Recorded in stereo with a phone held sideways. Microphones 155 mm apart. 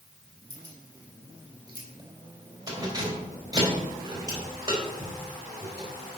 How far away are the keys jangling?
About 3 m.